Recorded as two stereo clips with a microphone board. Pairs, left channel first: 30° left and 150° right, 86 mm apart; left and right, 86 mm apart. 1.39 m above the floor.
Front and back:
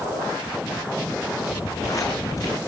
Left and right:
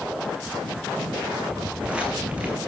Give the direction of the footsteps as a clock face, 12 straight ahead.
12 o'clock.